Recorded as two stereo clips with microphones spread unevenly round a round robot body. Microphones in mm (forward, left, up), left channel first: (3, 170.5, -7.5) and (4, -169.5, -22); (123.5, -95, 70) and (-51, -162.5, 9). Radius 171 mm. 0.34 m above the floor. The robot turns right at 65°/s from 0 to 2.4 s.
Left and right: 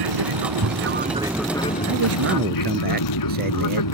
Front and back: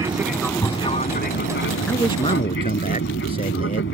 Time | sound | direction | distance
0.0 | an aircraft | 90° right | ?
1.9 | a man speaking | 60° right | ?